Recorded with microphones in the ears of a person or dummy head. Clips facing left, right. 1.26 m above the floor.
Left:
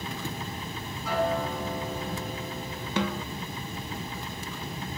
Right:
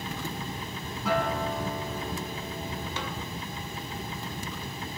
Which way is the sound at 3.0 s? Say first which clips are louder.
Left 7 dB; 50° left (ahead or behind).